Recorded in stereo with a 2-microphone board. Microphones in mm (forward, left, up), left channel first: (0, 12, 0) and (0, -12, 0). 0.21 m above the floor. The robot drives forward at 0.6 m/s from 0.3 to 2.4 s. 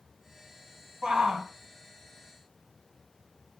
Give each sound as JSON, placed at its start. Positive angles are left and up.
{"t": 1.0, "sound": "a shout", "side_deg": -30, "distance_m": 1.1}